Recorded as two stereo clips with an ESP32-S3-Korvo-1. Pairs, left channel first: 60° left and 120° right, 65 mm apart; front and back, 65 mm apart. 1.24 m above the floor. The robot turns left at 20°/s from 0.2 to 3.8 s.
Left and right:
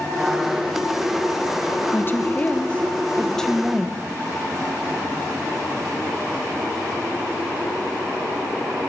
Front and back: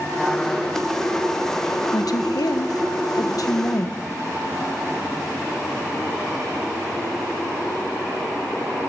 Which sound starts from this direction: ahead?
A woman speaking, at 1.9 s.